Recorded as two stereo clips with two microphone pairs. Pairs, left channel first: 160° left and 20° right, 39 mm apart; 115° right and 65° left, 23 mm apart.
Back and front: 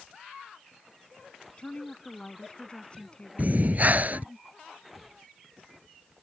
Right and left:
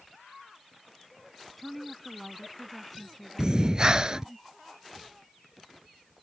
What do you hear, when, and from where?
1.6 s a woman speaking: 160° left
3.4 s breathing: 15° left